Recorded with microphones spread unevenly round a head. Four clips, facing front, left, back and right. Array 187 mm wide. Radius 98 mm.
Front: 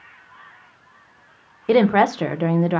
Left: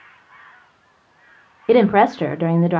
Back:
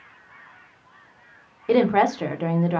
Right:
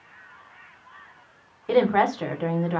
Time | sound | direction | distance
1.7 | a woman speaking | 65° left | 0.7 m